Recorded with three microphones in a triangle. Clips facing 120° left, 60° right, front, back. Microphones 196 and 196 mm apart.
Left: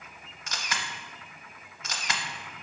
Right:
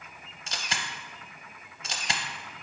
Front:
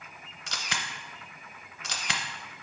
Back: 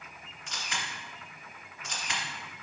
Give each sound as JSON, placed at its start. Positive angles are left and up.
{"t": 0.5, "sound": "a camera shutter", "azimuth_deg": 5, "distance_m": 0.7}